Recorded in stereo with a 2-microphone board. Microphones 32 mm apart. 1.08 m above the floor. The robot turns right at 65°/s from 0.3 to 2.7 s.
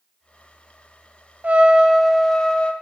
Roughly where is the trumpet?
Ahead right.